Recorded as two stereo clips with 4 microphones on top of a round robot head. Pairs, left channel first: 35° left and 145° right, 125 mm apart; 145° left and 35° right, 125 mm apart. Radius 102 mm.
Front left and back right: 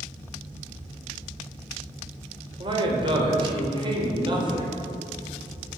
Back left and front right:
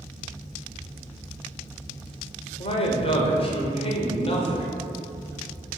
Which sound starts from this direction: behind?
A man speaking, at 2.6 s.